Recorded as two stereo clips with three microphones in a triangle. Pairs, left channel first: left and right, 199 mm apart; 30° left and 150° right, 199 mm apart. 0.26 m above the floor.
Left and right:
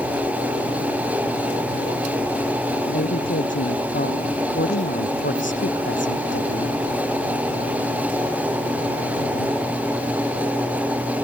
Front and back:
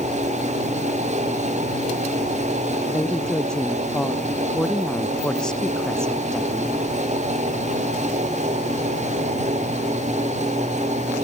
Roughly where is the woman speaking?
Behind left.